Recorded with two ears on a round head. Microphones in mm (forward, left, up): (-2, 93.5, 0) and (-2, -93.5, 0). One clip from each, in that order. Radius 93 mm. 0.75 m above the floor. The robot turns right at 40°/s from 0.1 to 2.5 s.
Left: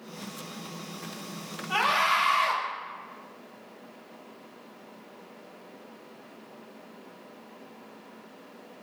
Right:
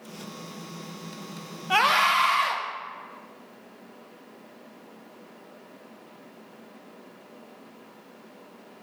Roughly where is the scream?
Ahead right.